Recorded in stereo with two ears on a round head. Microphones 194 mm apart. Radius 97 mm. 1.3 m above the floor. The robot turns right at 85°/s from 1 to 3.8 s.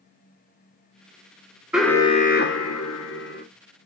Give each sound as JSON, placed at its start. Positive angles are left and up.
{"t": 1.7, "sound": "an alarm", "azimuth_deg": -5, "distance_m": 1.3}